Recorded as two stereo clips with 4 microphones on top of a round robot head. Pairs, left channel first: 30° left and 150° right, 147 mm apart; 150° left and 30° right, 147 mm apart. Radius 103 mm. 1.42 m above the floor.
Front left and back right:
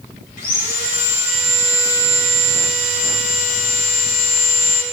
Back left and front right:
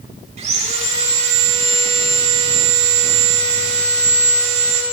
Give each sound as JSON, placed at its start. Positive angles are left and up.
{"t": 0.4, "sound": "sawing", "azimuth_deg": 10, "distance_m": 7.0}